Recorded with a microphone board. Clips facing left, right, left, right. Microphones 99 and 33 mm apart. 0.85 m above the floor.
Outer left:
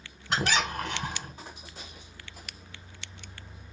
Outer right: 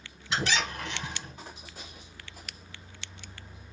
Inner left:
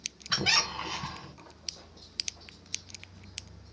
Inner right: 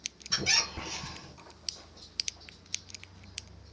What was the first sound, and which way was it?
A squeak, 50° left (ahead or behind).